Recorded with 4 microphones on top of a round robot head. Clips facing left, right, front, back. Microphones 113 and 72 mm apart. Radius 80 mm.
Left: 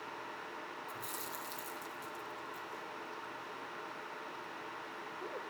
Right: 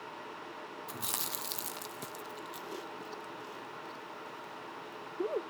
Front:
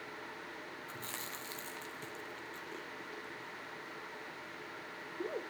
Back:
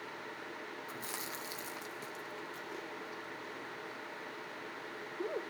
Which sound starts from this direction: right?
Chewing, at 0.9 s.